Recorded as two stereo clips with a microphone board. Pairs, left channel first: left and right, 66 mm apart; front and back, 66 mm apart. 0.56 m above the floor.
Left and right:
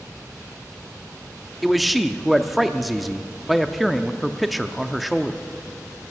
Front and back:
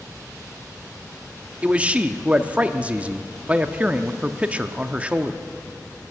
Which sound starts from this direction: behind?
A man speaking, at 1.6 s.